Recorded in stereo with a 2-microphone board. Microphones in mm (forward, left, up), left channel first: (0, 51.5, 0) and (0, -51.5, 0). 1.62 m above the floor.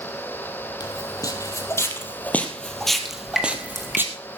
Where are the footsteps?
40° left (ahead or behind), 2 m; by 4.0 s 20° right (ahead or behind), 1.8 m.